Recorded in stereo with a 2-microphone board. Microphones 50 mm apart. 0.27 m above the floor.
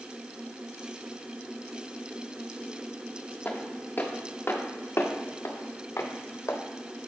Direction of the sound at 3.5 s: 30° left (ahead or behind).